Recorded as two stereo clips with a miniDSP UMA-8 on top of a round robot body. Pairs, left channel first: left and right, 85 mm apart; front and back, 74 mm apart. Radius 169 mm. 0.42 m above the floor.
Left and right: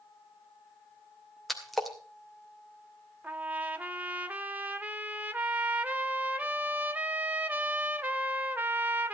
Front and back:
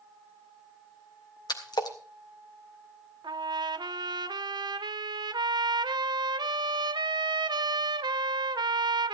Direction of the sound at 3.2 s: 160° right.